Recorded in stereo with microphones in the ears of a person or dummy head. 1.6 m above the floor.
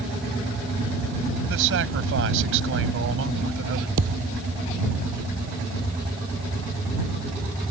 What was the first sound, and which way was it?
A man speaking, 75° right (ahead or behind).